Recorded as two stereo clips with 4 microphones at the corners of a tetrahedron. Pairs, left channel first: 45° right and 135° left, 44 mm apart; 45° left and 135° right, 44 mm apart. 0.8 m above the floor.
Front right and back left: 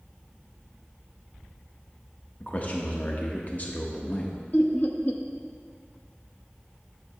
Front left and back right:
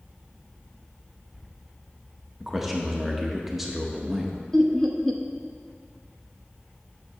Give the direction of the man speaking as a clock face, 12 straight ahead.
2 o'clock.